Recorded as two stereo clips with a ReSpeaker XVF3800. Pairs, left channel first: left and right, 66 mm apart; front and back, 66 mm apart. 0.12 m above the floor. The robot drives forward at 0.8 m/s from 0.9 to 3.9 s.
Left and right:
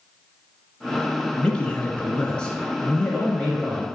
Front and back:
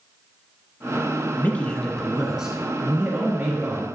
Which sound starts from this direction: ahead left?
A man speaking, at 1.4 s.